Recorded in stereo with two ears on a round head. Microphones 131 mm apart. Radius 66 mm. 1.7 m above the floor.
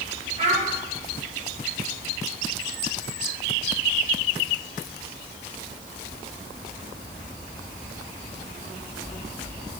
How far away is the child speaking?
About 2 m.